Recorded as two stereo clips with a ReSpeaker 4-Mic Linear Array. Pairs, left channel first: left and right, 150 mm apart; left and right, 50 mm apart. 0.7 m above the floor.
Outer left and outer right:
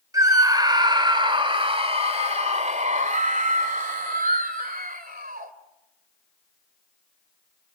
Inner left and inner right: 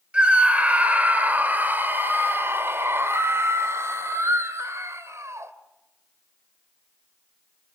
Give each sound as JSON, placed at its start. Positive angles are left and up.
{"t": 0.1, "sound": "a scream", "side_deg": -25, "distance_m": 2.5}